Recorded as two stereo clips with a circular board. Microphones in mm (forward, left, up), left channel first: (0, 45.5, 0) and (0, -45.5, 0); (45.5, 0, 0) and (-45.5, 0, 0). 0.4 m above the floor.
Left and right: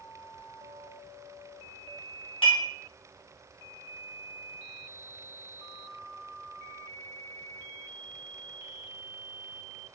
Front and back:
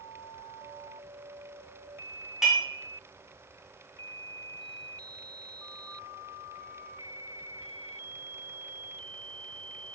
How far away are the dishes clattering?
About 2.0 m.